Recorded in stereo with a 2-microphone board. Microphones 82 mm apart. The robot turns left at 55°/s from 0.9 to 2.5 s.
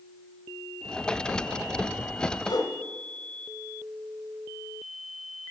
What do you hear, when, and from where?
2.5 s a whoosh: 55° left (ahead or behind), 1.7 m